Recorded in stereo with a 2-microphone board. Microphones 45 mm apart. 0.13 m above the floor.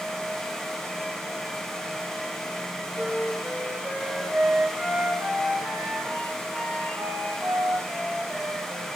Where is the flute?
40° right (ahead or behind), 8 m.